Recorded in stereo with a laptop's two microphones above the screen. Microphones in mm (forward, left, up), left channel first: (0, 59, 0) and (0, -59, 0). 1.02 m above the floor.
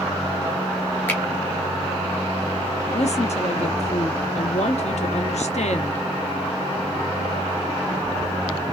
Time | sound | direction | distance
1.1 | a finger snap | 15° left (ahead or behind) | 1.2 m
2.9 | a woman speaking | 70° left (ahead or behind) | 0.9 m